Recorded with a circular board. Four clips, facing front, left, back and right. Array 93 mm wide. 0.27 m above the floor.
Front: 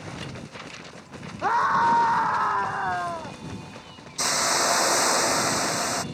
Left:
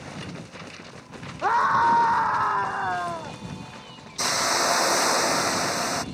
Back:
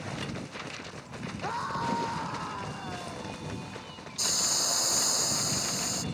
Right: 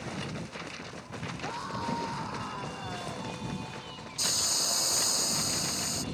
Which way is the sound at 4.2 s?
50° left.